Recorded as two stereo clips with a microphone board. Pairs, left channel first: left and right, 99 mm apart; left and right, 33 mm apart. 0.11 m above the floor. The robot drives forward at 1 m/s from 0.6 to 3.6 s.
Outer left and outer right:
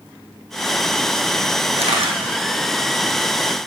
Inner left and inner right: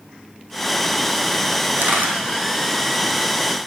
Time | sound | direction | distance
1.8 | a camera shutter | 70° right (ahead or behind) | 3 m